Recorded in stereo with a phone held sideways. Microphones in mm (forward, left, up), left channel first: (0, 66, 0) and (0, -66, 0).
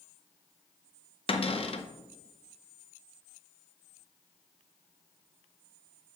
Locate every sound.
1.3 s a cupboard door: 50° left (ahead or behind), 0.6 m